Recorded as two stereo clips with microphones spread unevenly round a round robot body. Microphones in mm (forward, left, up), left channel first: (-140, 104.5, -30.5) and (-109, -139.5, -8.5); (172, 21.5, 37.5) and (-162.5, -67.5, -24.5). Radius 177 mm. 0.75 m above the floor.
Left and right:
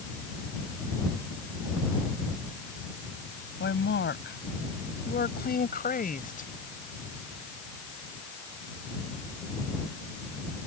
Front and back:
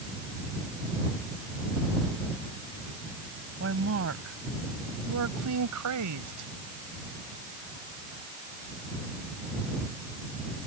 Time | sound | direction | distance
3.6 | a woman speaking | 140° left | ?